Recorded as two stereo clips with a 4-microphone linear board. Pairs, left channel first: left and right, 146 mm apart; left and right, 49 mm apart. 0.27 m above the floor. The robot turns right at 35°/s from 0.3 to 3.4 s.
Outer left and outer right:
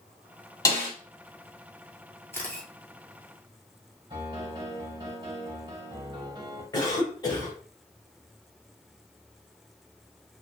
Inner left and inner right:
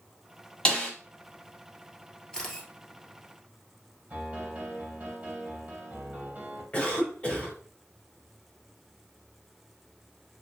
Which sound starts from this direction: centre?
A camera shutter, at 2.3 s.